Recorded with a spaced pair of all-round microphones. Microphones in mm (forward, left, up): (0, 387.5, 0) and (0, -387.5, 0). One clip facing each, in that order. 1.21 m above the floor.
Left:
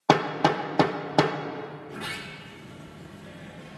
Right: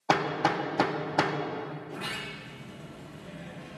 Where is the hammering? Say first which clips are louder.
Left 5 dB; 60° left (ahead or behind), 0.8 m.